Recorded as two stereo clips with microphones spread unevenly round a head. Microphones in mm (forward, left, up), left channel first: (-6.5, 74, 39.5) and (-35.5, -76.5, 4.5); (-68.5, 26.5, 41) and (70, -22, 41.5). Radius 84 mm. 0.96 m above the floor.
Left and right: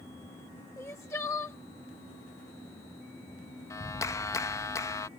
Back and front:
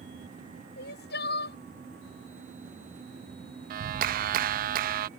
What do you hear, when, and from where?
0.8 s crying: 155° left
3.7 s a clap: straight ahead